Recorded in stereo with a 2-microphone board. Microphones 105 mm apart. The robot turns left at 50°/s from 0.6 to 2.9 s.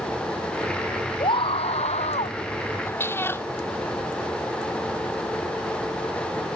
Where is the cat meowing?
25° left (ahead or behind); by 3.5 s 20° left (ahead or behind).